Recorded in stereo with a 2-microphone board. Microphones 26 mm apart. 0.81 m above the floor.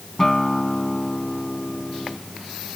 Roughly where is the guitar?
Centre.